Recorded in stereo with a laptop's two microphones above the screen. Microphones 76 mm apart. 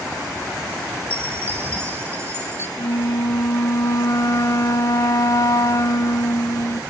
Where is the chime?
35° right (ahead or behind), 2.5 m.